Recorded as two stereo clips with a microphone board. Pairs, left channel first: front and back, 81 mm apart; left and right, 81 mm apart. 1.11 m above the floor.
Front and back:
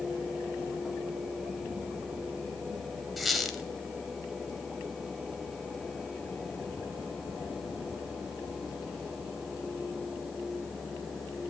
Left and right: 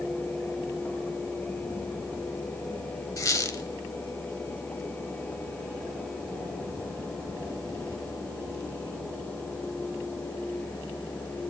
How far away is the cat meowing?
No cat meowing in this recording.